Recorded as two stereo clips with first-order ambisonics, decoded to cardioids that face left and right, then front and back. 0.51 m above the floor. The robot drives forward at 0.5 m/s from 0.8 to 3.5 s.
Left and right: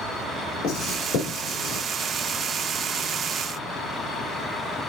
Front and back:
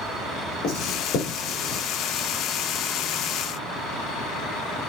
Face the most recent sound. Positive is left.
turn(degrees=55)